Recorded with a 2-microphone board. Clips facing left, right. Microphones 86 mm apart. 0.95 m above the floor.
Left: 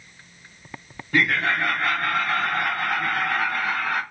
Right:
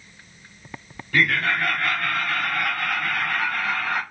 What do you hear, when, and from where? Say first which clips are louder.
1.1 s laughter: even; 20° left (ahead or behind), 1.2 m